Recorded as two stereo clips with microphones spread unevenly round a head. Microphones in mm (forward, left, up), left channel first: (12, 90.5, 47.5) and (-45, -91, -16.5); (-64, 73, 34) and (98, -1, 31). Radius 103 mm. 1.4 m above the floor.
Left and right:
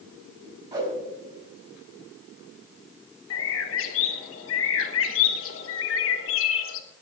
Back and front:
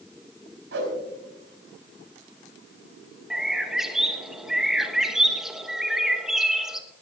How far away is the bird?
About 1.4 m.